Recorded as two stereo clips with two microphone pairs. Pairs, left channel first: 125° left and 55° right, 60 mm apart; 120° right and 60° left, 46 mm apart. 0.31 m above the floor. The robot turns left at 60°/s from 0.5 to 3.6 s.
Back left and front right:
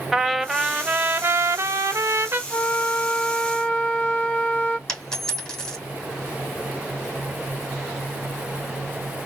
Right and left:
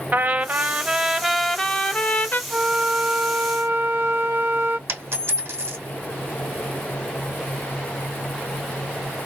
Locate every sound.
0.1 s a trumpet: 25° left, 0.7 m; by 2.4 s 90° right, 0.7 m
2.5 s a flute: 120° left, 0.7 m; by 4.8 s 55° left, 0.7 m
4.9 s a dropped coin: 50° left, 3 m